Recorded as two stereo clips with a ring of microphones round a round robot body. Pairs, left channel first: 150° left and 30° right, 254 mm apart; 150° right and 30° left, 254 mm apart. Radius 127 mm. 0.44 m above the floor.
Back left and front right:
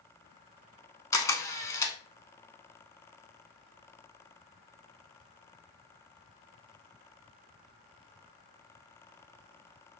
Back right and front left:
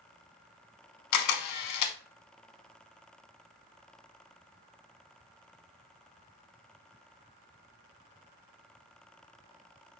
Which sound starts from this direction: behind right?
A camera shutter, at 1.1 s.